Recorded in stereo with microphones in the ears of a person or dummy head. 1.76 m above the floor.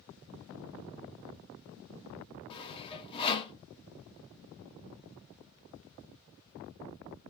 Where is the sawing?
25° left (ahead or behind), 0.6 m.